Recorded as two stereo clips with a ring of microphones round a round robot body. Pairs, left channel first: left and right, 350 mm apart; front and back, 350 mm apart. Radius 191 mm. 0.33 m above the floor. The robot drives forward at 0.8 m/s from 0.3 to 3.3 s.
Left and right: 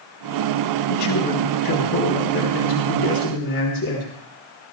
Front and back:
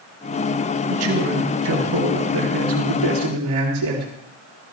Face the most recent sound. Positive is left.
turn(degrees=150)